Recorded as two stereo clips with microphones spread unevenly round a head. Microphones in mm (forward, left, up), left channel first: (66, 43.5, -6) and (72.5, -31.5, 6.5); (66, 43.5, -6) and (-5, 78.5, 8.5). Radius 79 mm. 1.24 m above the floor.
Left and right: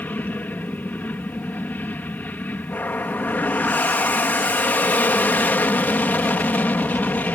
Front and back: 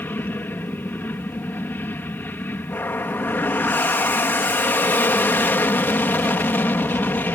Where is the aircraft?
35° left.